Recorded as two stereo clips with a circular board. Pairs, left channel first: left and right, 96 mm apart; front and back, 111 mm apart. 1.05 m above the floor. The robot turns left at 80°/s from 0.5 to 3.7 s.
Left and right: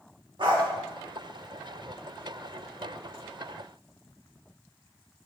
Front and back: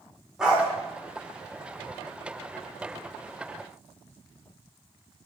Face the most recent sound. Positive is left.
turn(degrees=10)